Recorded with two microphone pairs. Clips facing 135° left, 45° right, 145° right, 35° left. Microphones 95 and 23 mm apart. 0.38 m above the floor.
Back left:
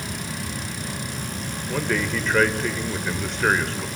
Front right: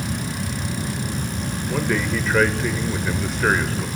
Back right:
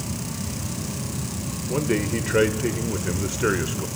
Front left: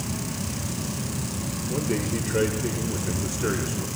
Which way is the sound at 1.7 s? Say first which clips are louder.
Front right 2 dB, back right 4 dB; 130° right.